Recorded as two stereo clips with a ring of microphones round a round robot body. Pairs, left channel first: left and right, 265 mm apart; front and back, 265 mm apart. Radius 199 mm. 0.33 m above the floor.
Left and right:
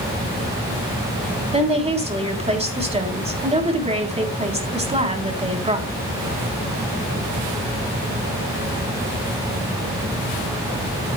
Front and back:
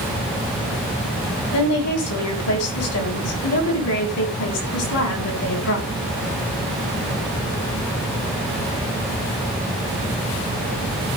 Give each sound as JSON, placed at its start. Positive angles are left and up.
{"t": 1.5, "sound": "a woman speaking", "azimuth_deg": -25, "distance_m": 3.5}